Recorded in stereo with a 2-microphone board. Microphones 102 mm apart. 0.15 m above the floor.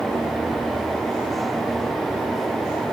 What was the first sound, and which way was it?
Only background noise.